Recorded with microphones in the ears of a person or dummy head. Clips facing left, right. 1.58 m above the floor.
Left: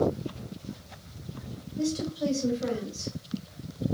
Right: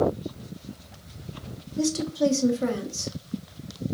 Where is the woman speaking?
75° right (ahead or behind), 1.5 m.